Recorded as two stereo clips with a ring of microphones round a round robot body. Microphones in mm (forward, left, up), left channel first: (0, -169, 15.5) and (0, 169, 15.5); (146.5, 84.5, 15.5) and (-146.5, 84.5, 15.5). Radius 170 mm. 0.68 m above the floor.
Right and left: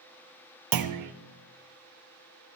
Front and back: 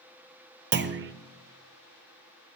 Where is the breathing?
No breathing in this recording.